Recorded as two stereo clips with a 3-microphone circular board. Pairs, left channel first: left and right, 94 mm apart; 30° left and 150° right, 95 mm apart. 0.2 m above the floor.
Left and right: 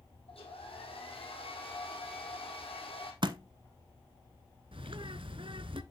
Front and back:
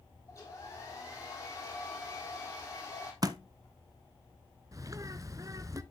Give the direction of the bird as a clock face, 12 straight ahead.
3 o'clock.